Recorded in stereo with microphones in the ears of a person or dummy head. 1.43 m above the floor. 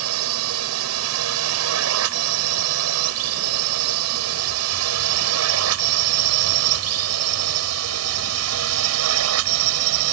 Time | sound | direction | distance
0.0 | a drone | 70° right (ahead or behind) | ?